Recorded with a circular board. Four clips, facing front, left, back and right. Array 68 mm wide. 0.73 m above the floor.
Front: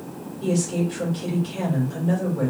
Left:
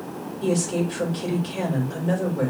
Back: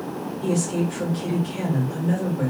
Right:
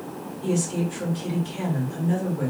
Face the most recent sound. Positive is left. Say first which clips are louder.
# left 2 dB, front 1 dB
turn(degrees=80)